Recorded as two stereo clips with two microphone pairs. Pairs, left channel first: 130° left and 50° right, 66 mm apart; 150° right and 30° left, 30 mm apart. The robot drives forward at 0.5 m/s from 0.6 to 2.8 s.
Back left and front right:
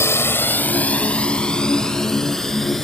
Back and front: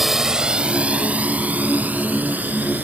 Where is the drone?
110° left; by 2.9 s 40° left.